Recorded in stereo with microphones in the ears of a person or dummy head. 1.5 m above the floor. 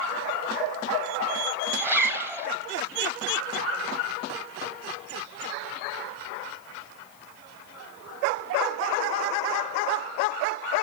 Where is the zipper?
10° right (ahead or behind), 1.7 m.